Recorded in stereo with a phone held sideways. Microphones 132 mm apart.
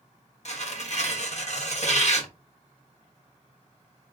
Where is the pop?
I don't hear a pop.